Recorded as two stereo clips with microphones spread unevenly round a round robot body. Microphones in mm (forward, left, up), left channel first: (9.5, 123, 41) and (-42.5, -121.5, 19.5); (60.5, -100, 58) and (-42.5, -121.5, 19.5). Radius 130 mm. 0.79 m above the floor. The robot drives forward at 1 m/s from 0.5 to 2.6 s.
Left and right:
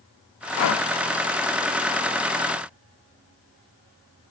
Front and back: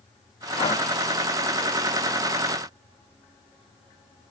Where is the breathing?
65° left, 1.2 m; by 0.8 s 80° left, 1.2 m.